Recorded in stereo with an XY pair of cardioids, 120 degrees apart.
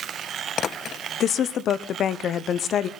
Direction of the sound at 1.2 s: 55° left.